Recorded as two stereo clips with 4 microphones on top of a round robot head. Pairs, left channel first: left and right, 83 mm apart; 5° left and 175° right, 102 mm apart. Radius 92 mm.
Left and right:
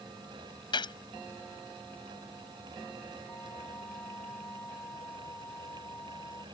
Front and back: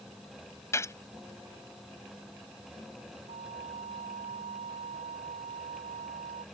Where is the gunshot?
65° left.